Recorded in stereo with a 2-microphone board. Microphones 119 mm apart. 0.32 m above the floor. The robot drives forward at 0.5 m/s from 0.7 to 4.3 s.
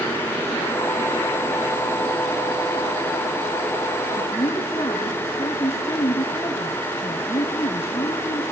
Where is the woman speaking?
30° left (ahead or behind), 3.5 m.